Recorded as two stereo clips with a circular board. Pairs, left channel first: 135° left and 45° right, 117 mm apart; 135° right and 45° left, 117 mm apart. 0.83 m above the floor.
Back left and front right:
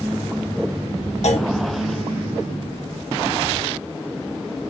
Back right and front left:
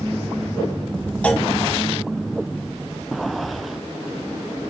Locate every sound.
1.2 s a clunk: 145° left, 1.5 m